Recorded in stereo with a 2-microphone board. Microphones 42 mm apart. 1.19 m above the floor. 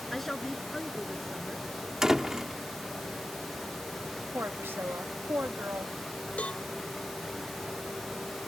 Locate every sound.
0.1 s a woman speaking: 5° left (ahead or behind)
2.0 s a door slam: 15° right (ahead or behind)
4.3 s a woman speaking: 70° right (ahead or behind)
6.4 s a cowbell: 35° left (ahead or behind)